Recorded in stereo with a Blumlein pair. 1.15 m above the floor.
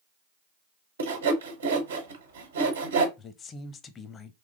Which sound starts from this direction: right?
Sawing, at 1.0 s.